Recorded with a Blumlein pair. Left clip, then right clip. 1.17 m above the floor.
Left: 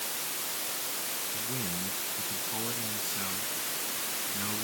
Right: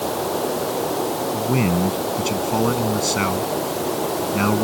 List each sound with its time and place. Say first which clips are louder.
0.0 s running water: right 14 dB; 45° right
1.3 s a man speaking: right 14 dB; 50° right